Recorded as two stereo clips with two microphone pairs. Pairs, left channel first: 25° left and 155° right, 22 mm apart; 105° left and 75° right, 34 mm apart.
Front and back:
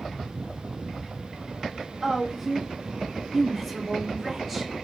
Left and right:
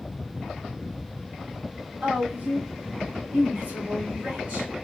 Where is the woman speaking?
70° right, 1.6 m.